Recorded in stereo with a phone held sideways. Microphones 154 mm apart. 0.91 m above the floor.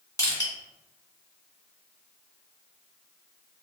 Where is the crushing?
25° left (ahead or behind), 1.5 m.